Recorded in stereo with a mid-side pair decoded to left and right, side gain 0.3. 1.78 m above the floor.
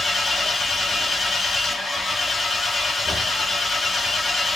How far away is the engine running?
About 2 m.